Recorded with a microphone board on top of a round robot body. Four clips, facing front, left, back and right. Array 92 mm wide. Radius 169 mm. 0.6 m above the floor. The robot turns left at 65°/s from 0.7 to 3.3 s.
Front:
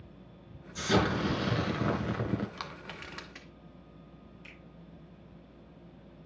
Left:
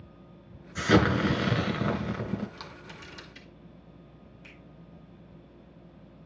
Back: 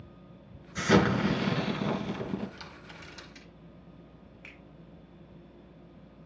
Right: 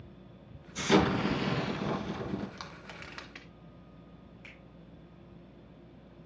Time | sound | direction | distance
0.8 | an explosion | 130° left | 1.9 m
2.6 | crushing | 10° right | 1.7 m
4.4 | a finger snap | 140° right | 5 m